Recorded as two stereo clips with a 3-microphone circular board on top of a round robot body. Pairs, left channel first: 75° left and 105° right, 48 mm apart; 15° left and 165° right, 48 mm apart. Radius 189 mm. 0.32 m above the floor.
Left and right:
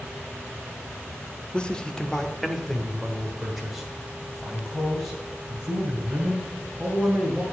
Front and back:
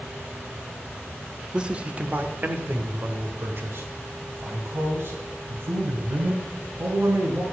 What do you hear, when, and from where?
1.5 s a man speaking: 135° left, 1.1 m; by 7.4 s 175° left, 5 m